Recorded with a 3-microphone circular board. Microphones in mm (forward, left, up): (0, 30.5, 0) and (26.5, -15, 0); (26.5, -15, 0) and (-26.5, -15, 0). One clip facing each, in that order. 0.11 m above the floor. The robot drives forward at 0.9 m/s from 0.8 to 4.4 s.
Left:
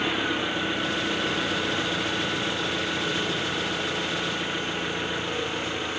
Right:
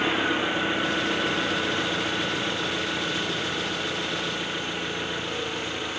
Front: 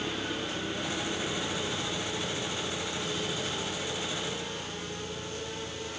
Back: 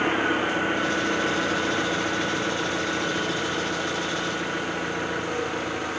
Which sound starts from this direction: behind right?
An engine running, at 0.0 s.